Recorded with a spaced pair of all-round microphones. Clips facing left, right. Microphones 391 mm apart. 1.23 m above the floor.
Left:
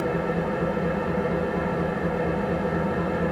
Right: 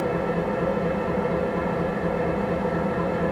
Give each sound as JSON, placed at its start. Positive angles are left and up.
{"t": 0.0, "sound": "an engine running", "side_deg": -10, "distance_m": 0.8}